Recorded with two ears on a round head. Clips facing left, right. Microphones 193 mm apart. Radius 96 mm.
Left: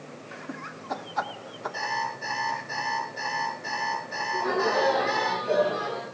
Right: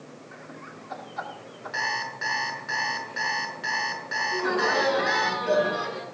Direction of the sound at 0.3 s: 60° left (ahead or behind).